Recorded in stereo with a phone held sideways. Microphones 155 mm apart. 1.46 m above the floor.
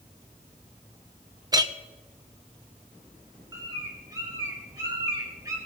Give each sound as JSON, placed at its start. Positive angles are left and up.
{"t": 1.5, "sound": "a clink", "side_deg": -25, "distance_m": 0.6}
{"t": 3.5, "sound": "a bird", "side_deg": -25, "distance_m": 3.0}